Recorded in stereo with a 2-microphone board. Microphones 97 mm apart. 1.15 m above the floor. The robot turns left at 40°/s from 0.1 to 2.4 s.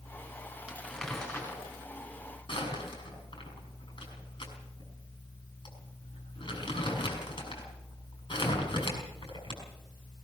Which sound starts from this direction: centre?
Crumpling, at 0.7 s.